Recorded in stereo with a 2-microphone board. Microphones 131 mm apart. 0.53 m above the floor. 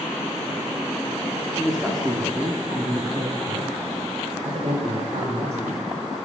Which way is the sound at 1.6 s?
5° left (ahead or behind).